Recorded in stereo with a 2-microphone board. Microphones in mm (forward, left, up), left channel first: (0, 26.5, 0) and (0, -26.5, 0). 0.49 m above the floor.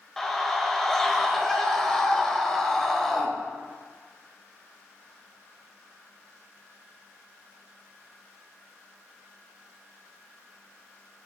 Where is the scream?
10° left (ahead or behind), 1.9 m.